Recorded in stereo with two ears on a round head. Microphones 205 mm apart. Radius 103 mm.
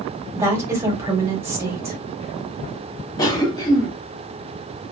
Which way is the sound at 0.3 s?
10° right (ahead or behind).